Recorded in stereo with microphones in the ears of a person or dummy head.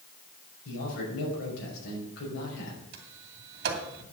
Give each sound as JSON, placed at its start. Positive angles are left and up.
{"t": 0.7, "sound": "a man speaking", "side_deg": 75, "distance_m": 6.0}
{"t": 2.9, "sound": "a sliding door", "side_deg": -60, "distance_m": 2.5}